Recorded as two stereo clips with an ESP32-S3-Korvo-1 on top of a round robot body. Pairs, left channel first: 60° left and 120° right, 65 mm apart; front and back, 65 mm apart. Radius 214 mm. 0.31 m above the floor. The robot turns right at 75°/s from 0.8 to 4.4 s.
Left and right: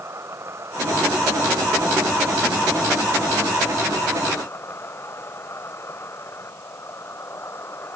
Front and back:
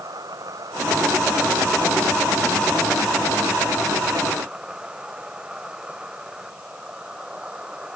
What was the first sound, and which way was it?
An insect, 165° right.